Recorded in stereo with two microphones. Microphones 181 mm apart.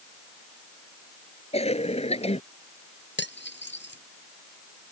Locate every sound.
1.5 s a cough: 35° left (ahead or behind)
3.2 s cutlery clinking: 75° left (ahead or behind)